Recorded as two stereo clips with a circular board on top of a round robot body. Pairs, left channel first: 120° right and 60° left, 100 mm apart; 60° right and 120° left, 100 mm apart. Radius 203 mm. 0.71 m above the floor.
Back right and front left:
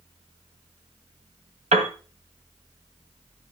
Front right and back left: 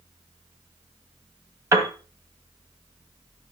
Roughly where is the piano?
Ahead left.